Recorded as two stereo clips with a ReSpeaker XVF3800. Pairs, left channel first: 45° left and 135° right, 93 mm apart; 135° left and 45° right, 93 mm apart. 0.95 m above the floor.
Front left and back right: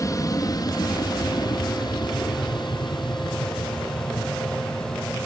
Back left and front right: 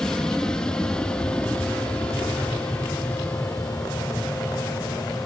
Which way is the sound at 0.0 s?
55° left.